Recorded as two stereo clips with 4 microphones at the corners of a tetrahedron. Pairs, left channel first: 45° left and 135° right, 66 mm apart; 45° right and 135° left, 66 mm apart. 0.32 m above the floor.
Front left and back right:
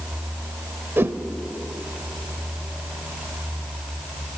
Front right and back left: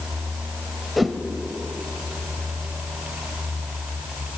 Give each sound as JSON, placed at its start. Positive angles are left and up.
{"t": 1.0, "sound": "a whoosh", "azimuth_deg": -140, "distance_m": 0.8}